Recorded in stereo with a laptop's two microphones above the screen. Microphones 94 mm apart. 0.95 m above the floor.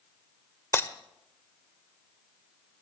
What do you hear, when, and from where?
0.7 s breaking glass: 25° left (ahead or behind), 0.7 m